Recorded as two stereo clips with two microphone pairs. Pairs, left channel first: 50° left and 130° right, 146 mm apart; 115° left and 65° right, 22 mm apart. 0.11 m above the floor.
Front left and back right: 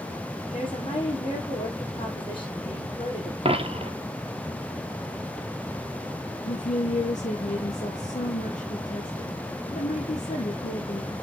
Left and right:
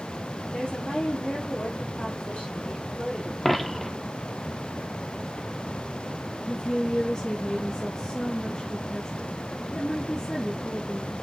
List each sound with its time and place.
0.5 s a woman speaking: 100° left, 4.5 m
3.5 s a dropped coin: 170° right, 1.2 m
6.4 s a woman speaking: 80° left, 3.5 m